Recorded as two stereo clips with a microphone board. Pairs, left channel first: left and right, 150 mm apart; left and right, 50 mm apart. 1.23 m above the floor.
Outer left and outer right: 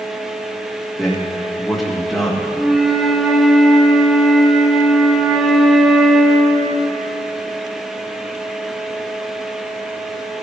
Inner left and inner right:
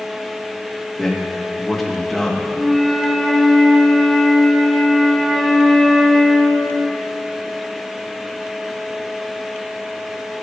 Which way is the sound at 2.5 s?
Centre (ahead or behind).